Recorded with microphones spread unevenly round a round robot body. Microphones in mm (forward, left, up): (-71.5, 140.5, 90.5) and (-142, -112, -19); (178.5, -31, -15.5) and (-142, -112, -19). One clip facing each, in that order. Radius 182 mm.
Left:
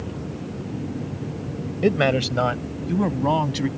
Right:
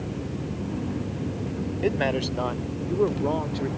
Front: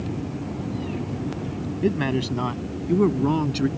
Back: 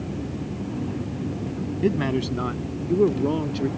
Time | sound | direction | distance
1.8 | a man speaking | 105° left | ?